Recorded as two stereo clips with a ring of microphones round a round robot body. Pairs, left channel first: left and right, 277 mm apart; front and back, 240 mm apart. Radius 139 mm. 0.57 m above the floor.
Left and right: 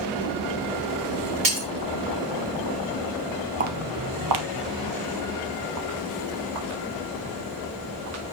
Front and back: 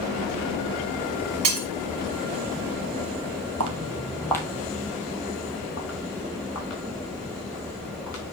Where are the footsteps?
150° right, 0.9 m; by 8.2 s 45° right, 6 m.